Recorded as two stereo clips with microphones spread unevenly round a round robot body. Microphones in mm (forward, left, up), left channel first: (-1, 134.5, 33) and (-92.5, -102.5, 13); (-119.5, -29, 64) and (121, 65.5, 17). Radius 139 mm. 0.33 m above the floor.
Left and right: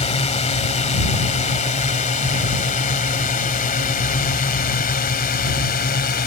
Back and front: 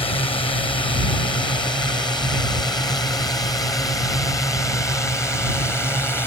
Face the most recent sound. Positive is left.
turn(degrees=115)